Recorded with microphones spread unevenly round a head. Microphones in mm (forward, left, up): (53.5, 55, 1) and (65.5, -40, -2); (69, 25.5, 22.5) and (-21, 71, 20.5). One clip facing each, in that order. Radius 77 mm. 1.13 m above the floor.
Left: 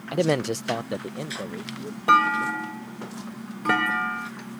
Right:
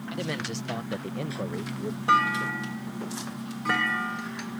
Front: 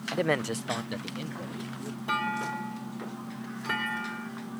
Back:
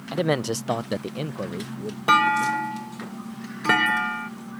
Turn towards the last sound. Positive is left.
turn(degrees=155)